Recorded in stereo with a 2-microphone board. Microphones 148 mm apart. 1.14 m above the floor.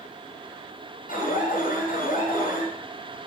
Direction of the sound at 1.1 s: 75° left (ahead or behind).